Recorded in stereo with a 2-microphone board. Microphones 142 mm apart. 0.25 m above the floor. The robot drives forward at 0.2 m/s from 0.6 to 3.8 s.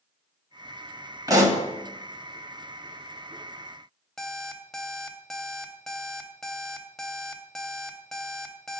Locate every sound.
1.3 s a pop: 25° right (ahead or behind), 1.3 m
4.2 s an alarm clock: 5° left (ahead or behind), 0.7 m